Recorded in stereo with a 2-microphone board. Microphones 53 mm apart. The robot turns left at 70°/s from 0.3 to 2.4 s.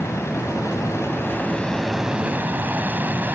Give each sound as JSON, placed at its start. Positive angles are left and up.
{"t": 0.0, "sound": "an aircraft", "side_deg": 60}